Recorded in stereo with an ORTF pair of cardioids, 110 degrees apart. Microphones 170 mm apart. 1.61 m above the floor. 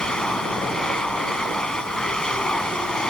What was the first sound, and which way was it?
A machine running, 5° left.